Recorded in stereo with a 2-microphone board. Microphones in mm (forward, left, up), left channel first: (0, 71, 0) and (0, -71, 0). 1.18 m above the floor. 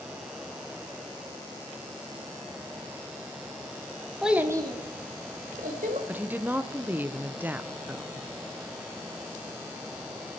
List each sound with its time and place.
4.2 s a child speaking: centre (ahead or behind), 1.3 m; by 6.0 s 75° right (ahead or behind), 2.5 m
6.1 s a woman speaking: 10° right (ahead or behind), 0.6 m